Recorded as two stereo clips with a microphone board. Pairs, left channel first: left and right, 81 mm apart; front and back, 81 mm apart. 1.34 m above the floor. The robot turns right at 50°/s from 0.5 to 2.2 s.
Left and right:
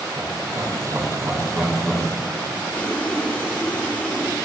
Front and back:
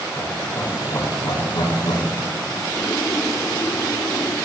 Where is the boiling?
20° left, 1.3 m.